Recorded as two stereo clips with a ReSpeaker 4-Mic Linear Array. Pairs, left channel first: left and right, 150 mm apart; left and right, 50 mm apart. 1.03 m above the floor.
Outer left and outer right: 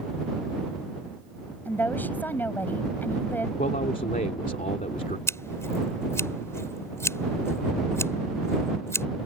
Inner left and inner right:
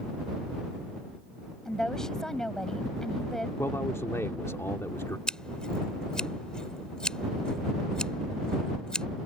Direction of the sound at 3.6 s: 65° left (ahead or behind).